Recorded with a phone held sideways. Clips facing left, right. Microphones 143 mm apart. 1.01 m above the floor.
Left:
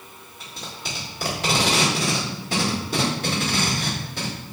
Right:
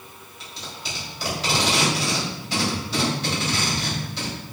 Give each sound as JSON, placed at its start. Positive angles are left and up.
{"t": 0.4, "sound": "tape being pulled", "side_deg": 50, "distance_m": 1.9}